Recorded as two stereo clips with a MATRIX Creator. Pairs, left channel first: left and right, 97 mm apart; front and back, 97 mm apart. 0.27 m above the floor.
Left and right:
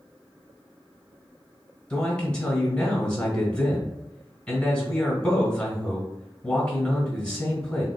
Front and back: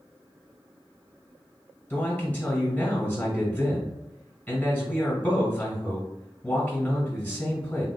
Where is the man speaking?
30° left, 1.6 m.